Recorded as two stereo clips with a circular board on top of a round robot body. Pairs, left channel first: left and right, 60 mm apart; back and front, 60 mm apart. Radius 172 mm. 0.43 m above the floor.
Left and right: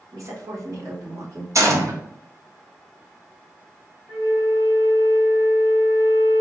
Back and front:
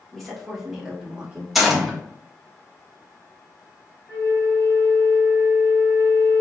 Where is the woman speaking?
95° right, 1.9 m; by 1.4 s 65° right, 2 m.